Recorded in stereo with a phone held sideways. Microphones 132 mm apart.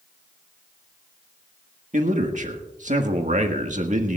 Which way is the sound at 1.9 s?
70° right (ahead or behind).